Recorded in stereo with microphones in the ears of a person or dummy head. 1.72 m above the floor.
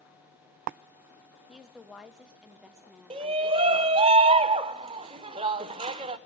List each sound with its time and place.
1.5 s a woman speaking: centre (ahead or behind), 0.9 m
3.1 s a shout: 30° right (ahead or behind), 0.7 m